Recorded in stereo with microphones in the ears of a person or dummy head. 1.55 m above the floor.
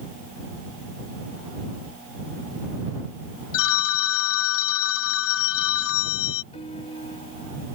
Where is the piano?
35° left (ahead or behind).